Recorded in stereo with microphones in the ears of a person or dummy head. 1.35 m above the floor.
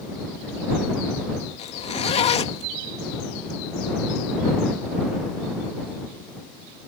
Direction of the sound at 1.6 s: 35° left (ahead or behind).